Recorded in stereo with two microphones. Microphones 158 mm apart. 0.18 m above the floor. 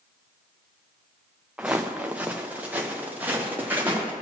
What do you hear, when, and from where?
1.6 s footsteps: 10° right (ahead or behind), 0.9 m; by 4.1 s 15° right (ahead or behind), 2.5 m